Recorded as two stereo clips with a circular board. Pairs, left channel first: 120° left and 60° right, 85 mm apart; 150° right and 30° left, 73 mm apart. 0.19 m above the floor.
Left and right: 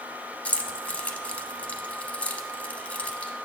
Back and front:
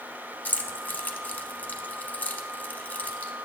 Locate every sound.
0.5 s keys jangling: 175° left, 0.7 m